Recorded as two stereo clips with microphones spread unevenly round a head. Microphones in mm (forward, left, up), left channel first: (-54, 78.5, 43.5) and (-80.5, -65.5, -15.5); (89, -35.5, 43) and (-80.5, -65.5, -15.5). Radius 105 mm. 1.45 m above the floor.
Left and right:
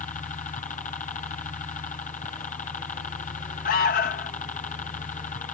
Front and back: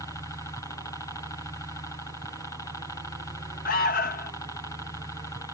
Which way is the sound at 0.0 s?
100° left.